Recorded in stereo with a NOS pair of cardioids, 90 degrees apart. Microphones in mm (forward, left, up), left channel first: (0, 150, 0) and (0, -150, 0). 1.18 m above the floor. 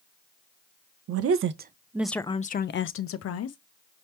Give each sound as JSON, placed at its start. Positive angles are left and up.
{"t": 1.1, "sound": "a woman speaking", "azimuth_deg": -60, "distance_m": 0.8}